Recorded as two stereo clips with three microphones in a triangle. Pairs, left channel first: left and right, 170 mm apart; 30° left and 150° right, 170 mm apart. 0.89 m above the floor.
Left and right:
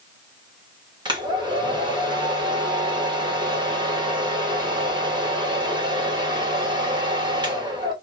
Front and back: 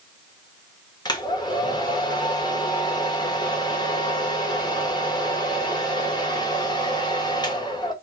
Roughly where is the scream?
I don't hear a scream.